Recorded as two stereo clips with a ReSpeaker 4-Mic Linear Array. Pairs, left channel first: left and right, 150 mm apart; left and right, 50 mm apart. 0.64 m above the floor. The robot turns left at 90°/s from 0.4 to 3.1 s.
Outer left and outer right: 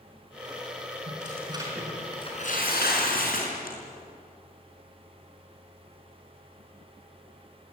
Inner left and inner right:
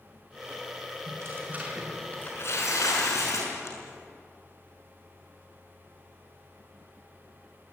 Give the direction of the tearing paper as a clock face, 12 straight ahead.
4 o'clock.